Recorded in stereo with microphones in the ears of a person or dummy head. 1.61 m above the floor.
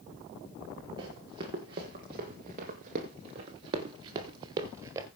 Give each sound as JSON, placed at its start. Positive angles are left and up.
{"t": 1.0, "sound": "running footsteps", "side_deg": -20, "distance_m": 2.0}